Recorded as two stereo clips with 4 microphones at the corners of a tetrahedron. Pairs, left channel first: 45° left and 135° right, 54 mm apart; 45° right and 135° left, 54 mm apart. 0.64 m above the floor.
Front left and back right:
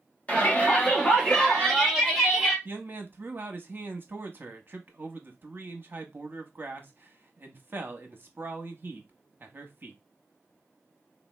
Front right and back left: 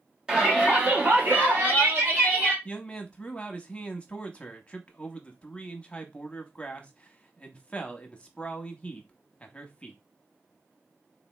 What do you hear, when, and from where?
0.3 s a shout: 75° left, 1.3 m; by 2.5 s 130° left, 1.7 m
2.6 s a man speaking: 105° right, 0.7 m